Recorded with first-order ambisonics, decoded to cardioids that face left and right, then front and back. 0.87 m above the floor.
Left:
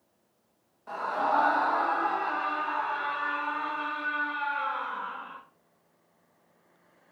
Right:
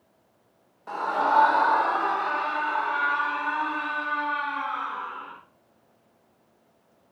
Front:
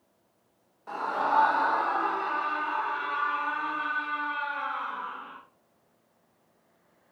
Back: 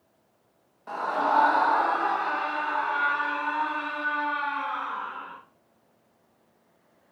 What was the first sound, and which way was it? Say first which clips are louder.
A scream: right 4 dB, back 2 dB; 115° right.